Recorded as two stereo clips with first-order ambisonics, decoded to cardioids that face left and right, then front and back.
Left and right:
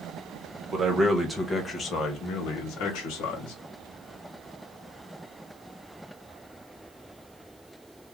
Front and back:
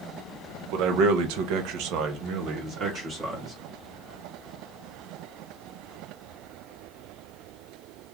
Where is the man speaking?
160° right, 0.9 m; by 3.5 s 110° left, 1.2 m.